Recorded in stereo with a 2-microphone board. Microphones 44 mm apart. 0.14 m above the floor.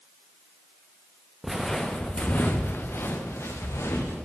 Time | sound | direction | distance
1.4 | footsteps | 5° right (ahead or behind) | 0.7 m